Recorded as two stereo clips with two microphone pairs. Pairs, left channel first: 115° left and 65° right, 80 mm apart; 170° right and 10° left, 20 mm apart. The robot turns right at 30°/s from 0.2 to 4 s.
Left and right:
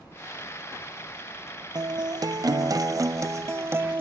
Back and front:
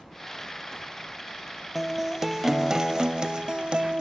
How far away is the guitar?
About 0.6 m.